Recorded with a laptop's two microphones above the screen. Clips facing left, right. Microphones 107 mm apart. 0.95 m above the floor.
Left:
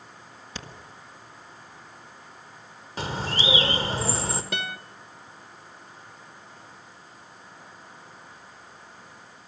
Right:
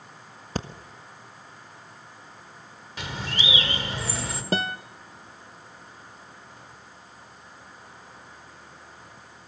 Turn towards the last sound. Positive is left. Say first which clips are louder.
# right 6 dB
turn(degrees=-35)  # may be behind; listen again after turning